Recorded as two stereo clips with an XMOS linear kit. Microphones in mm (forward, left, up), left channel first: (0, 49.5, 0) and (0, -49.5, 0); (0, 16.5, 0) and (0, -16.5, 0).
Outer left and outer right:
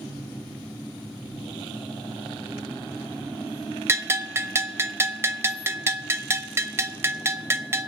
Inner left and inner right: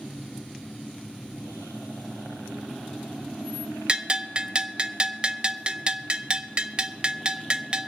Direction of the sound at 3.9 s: 25° right (ahead or behind).